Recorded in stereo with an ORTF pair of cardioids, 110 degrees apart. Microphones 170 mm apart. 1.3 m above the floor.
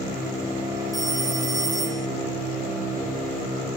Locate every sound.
0.9 s a phone ringing: 25° right, 1.6 m